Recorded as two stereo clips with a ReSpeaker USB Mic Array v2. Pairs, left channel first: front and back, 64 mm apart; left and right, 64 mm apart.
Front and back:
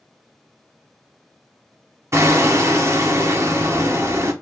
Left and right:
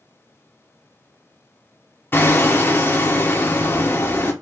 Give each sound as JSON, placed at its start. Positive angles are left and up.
{"t": 2.1, "sound": "hammering", "azimuth_deg": 140, "distance_m": 0.7}